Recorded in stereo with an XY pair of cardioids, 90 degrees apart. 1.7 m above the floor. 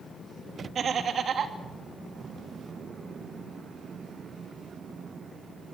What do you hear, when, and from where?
0.8 s laughter: 55° right, 3 m